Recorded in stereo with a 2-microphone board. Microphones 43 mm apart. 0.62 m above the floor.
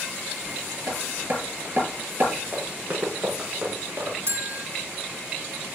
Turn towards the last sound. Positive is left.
turn(degrees=-55)  # may be behind; listen again after turning